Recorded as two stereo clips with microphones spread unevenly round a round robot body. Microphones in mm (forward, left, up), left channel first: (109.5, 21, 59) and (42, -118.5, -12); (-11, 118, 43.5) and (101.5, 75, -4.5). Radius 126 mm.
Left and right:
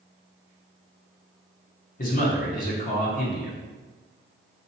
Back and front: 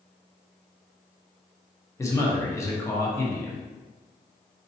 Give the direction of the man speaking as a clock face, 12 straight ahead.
10 o'clock.